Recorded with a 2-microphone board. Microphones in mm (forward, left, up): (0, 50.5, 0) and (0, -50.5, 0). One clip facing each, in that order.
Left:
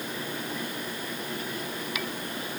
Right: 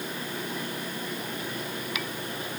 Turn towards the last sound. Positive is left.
No sound to turn to.